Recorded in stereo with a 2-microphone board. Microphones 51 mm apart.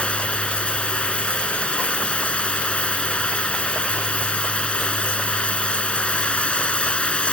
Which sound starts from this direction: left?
Running water, at 0.0 s.